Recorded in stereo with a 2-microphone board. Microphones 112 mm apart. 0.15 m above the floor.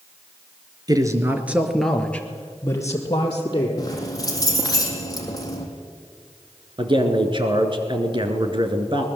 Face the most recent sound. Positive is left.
turn(degrees=-45)  # may be behind; listen again after turning